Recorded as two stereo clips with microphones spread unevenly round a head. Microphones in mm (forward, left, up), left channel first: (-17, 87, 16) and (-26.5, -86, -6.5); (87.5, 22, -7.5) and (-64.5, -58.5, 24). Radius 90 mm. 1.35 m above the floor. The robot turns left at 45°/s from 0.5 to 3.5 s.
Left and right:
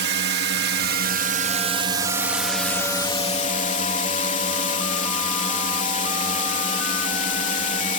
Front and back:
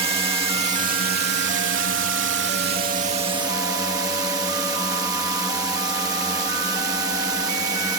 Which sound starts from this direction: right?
A drone, at 0.0 s.